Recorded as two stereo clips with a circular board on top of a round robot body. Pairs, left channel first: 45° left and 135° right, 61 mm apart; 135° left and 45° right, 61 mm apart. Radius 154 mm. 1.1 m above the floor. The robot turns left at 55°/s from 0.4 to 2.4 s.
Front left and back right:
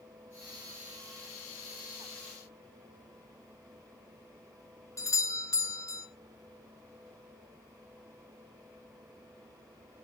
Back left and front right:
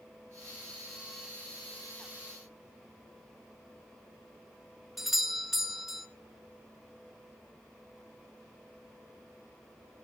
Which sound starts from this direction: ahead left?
A doorbell, at 5.0 s.